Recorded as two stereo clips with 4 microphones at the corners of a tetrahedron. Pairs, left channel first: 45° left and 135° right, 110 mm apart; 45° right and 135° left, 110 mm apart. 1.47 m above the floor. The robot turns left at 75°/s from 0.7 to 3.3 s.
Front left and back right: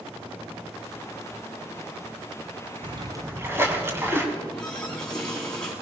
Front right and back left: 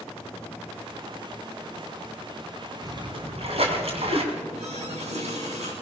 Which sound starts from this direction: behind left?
A running tap, at 4.3 s.